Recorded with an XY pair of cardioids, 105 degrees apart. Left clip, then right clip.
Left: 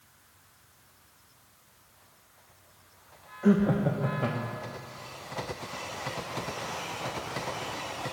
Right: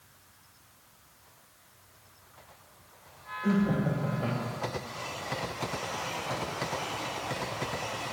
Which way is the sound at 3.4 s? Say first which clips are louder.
Left 4 dB; 55° left.